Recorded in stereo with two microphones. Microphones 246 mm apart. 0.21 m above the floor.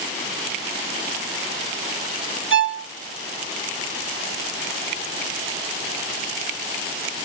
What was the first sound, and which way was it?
A violin, 50° right (ahead or behind).